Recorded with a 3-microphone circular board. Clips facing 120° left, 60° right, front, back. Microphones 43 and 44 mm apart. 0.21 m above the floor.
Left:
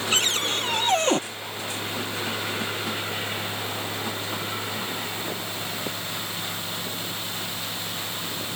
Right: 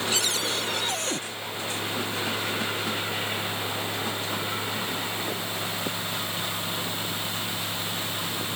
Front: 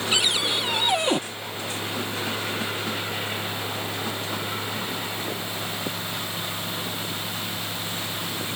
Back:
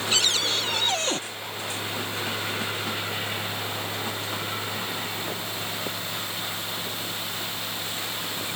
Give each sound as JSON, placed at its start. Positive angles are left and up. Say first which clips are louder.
{"t": 0.1, "sound": "a cupboard door", "louder": "left 3 dB, front 2 dB", "azimuth_deg": 75}